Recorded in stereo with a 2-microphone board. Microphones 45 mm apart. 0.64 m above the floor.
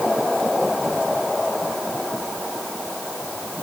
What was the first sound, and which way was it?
Only background noise.